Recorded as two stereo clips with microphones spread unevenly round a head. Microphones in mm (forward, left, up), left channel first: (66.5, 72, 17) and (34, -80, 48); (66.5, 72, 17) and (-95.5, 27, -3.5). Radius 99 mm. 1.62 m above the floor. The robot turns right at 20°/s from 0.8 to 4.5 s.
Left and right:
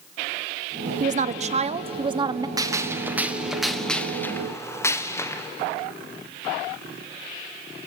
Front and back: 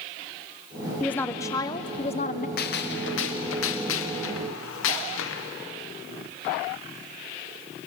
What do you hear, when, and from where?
1.0 s a woman speaking: 70° right, 0.8 m; by 2.5 s 40° right, 0.8 m
2.6 s a gunshot: 35° right, 1.4 m; by 5.5 s 5° left, 1.4 m